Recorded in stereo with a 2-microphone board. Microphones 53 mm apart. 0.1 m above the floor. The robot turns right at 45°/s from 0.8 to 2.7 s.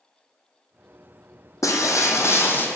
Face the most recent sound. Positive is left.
turn(degrees=140)